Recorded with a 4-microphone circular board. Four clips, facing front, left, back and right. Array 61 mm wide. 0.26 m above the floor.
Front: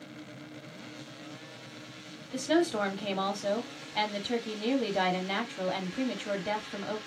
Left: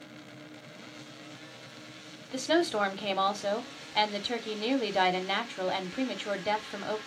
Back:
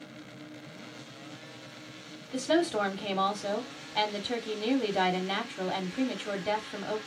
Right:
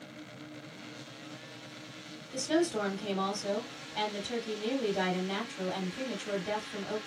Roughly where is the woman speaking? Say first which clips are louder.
Left 2 dB, even; left.